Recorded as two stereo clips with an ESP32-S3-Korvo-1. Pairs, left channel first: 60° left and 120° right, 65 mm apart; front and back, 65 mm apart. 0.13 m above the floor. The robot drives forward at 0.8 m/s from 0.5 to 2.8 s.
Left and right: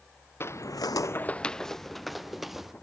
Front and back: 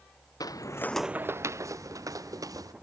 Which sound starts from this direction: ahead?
Footsteps, at 0.4 s.